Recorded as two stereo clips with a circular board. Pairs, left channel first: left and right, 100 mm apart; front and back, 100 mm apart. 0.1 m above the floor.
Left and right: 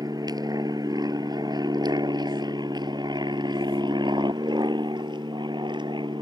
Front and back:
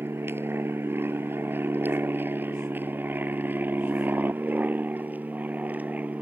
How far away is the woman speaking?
No woman speaking in this recording.